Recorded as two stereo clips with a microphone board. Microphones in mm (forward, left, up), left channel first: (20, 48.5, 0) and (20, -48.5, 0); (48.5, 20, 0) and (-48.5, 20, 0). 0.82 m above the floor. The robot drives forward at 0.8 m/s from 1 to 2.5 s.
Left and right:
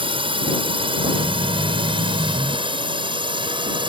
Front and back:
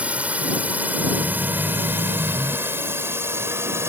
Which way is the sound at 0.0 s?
105° right.